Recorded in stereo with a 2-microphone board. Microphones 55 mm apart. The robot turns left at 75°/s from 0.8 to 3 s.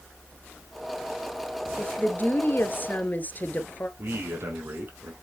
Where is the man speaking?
45° right (ahead or behind), 4 m.